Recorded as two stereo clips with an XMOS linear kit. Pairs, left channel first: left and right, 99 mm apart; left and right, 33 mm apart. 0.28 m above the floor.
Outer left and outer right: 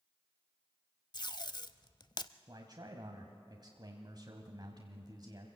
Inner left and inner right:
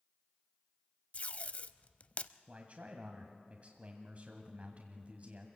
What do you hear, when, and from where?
1.1 s tape being pulled: 45° left (ahead or behind), 0.6 m
2.5 s a man speaking: 45° right (ahead or behind), 1.7 m